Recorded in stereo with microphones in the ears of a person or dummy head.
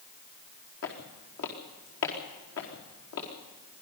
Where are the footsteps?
70° left (ahead or behind), 4 m; by 3.3 s 75° left (ahead or behind), 5.5 m.